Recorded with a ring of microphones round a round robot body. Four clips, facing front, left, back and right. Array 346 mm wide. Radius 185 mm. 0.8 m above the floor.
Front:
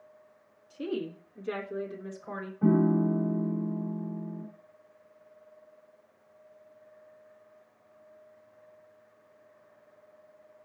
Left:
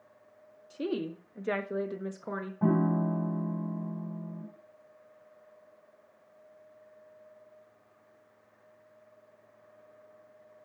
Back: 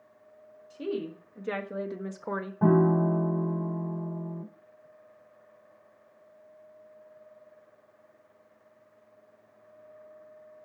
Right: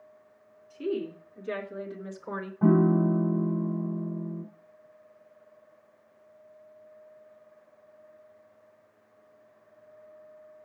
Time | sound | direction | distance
0.7 | a woman speaking | 90° left | 2 m
2.6 | a piano | 175° right | 0.9 m